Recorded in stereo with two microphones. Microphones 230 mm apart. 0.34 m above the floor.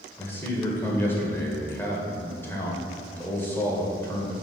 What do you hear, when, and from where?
0.2 s a man speaking: 10° left (ahead or behind), 1.3 m